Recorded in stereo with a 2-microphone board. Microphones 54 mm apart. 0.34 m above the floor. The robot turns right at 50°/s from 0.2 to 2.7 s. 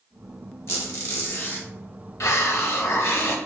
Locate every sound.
0.7 s a squeak: 80° left, 0.9 m; by 1.7 s 130° left, 0.9 m
2.2 s a hiss: 65° left (ahead or behind), 0.6 m; by 3.4 s 55° left (ahead or behind), 0.6 m